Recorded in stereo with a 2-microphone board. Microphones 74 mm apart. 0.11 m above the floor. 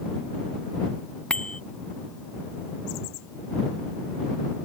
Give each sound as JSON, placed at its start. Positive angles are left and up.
{"t": 1.3, "sound": "a bicycle bell", "side_deg": 10}